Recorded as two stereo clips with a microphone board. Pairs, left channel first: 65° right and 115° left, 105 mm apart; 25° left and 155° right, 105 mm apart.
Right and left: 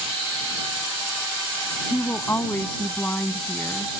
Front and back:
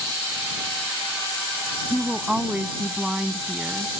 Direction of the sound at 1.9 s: 90° right.